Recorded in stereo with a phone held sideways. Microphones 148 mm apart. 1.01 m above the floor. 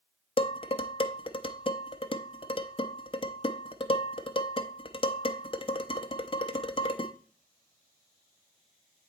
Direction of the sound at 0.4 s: 35° left (ahead or behind).